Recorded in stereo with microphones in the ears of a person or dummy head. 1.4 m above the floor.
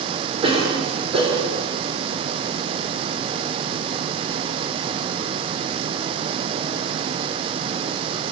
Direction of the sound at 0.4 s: 35° right (ahead or behind).